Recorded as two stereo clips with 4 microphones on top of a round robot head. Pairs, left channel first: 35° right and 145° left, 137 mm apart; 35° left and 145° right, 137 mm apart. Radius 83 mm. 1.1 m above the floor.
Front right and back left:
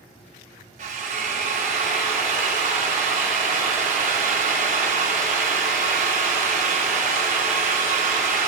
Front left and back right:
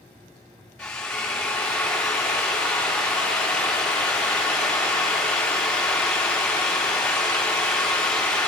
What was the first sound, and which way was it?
A drill, 115° left.